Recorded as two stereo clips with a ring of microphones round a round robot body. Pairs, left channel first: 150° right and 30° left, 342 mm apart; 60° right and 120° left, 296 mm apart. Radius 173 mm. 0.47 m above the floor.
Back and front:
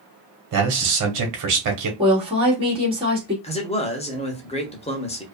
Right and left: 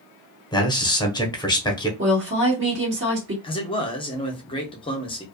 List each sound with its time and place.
0.5 s a man speaking: 15° left, 1.2 m
2.0 s a woman speaking: 100° left, 1.7 m
3.4 s a man speaking: 105° right, 0.7 m